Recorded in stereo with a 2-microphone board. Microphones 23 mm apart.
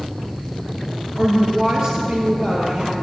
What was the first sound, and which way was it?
A woman speaking, 30° right (ahead or behind).